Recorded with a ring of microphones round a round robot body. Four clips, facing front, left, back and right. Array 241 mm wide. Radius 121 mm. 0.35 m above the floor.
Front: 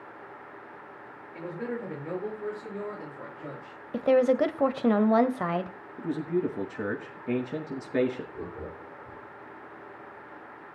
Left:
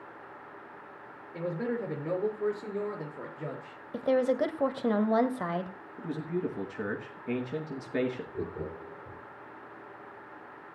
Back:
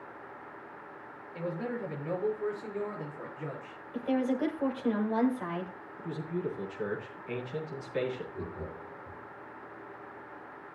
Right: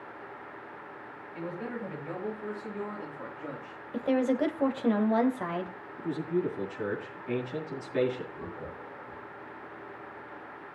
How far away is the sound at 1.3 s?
About 7.5 m.